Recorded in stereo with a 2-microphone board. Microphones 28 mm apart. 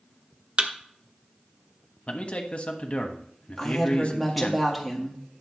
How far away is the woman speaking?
About 1.9 m.